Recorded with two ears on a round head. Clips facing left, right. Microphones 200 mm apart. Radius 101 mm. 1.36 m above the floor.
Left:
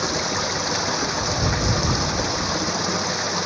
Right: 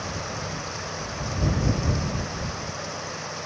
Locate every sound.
0.0 s running water: 90° left